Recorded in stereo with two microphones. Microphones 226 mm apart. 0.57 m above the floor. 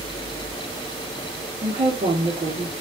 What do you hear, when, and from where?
1.6 s a woman speaking: 30° right (ahead or behind), 1.4 m